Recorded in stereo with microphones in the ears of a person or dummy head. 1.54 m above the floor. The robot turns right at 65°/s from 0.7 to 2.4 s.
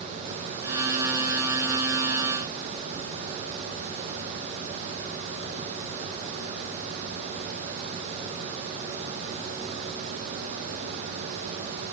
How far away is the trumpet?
I don't hear a trumpet.